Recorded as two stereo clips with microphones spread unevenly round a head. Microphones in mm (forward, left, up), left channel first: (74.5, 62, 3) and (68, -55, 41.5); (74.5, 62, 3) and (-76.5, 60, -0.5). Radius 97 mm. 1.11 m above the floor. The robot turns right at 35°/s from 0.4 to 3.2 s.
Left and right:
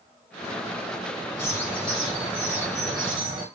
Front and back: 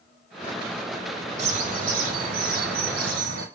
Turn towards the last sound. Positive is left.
turn(degrees=-155)